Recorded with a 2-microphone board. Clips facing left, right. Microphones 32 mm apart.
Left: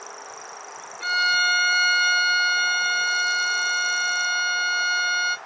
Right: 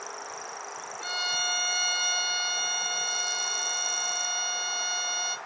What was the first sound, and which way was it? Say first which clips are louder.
A violin: left 10 dB; 60° left (ahead or behind).